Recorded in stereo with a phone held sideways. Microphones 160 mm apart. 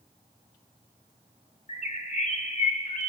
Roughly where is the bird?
Left.